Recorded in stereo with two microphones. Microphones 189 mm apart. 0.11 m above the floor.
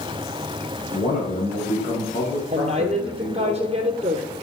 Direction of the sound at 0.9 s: 50° left (ahead or behind).